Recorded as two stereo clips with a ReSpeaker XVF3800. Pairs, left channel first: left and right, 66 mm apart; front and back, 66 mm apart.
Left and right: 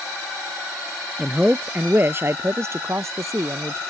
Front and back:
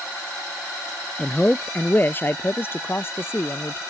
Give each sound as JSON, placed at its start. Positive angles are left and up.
{"t": 1.2, "sound": "a man speaking", "azimuth_deg": -30}